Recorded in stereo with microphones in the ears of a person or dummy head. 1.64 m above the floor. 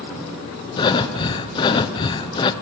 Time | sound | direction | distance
0.8 | breathing | 25° left (ahead or behind) | 1.0 m